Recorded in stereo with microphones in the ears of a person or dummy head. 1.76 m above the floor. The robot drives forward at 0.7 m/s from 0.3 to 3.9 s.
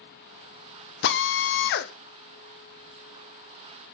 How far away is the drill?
About 0.8 m.